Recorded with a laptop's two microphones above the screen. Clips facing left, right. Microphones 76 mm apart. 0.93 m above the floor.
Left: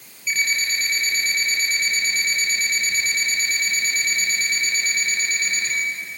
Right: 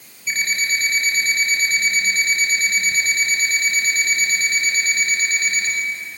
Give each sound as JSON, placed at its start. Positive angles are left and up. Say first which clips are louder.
{"t": 0.3, "sound": "an alarm clock", "louder": "right 2 dB", "side_deg": -55, "distance_m": 6.5}